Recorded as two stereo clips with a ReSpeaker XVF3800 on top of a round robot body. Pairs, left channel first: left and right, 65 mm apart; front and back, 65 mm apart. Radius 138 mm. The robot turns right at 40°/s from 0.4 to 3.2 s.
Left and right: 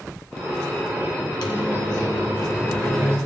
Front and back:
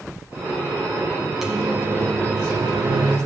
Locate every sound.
1.4 s a microwave: 95° left, 1.4 m; by 3.2 s 165° left, 1.4 m